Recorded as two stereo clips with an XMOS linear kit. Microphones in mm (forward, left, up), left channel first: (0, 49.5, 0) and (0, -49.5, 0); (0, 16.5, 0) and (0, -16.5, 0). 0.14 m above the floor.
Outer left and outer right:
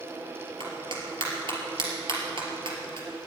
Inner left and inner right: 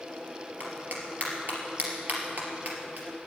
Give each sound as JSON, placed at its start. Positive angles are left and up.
{"t": 0.6, "sound": "a clap", "side_deg": -55, "distance_m": 3.0}